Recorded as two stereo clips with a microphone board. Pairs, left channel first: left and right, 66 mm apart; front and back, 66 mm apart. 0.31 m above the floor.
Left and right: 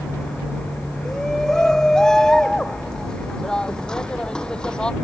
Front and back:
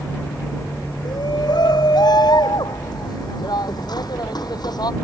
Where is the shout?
5° left; by 4.9 s 15° left.